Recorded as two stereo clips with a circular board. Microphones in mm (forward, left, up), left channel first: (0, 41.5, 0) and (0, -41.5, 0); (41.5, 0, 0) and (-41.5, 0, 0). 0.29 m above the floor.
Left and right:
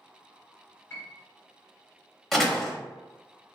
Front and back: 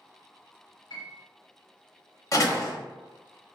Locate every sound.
0.9 s a piano: 25° left, 1.1 m
2.3 s a door slam: 5° left, 0.7 m